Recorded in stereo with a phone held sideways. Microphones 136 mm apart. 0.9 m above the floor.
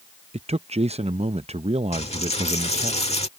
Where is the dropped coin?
50° left (ahead or behind).